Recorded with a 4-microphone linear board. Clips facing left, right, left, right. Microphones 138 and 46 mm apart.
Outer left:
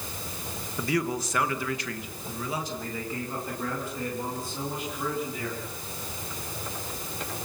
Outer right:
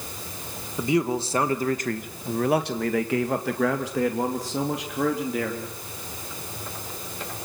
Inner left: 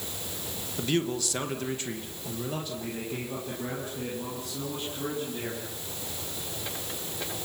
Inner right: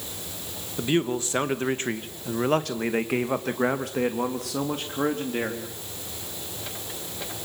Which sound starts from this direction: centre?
A man speaking, at 0.8 s.